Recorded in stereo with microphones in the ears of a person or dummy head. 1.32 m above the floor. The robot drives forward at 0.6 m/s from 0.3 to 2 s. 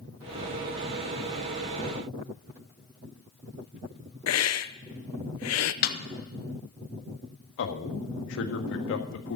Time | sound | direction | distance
4.3 | a hiss | 70° left (ahead or behind) | 0.7 m
5.8 | a snare drum | 55° left (ahead or behind) | 1.6 m
7.6 | a man speaking | 70° left (ahead or behind) | 1.7 m